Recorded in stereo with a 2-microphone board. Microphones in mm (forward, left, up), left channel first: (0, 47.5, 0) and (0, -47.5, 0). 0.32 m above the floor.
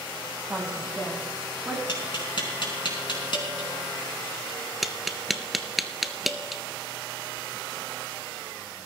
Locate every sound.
0.5 s a woman speaking: 20° right (ahead or behind), 1.9 m; by 1.8 s 15° right (ahead or behind), 2.5 m
1.9 s tapping: 60° left (ahead or behind), 4 m
4.8 s tapping: centre (ahead or behind), 0.8 m